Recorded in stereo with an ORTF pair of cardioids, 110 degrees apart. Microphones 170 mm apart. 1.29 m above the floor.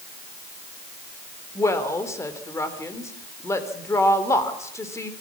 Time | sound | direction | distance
1.6 | a woman speaking | 15° left | 3.5 m